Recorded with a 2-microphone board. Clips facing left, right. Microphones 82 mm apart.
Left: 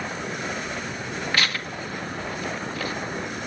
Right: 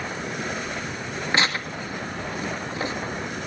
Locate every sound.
1.3 s tearing paper: 25° right (ahead or behind), 1.5 m